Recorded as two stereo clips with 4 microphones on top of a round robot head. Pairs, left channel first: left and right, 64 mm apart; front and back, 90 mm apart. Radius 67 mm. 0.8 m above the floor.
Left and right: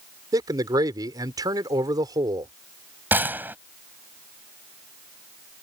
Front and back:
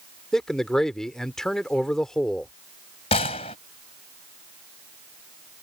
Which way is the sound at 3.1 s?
30° right.